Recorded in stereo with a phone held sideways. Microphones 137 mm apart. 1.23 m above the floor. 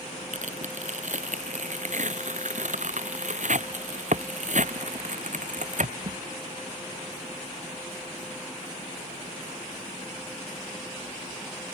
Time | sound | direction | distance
0.3 | tearing paper | 65° right (ahead or behind) | ?